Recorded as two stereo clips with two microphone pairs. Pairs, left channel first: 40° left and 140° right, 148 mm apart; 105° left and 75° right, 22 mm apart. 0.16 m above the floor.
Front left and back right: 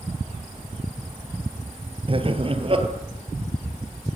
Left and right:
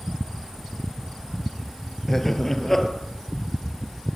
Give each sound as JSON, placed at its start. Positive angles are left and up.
{"t": 2.1, "sound": "laughter", "azimuth_deg": 175, "distance_m": 3.0}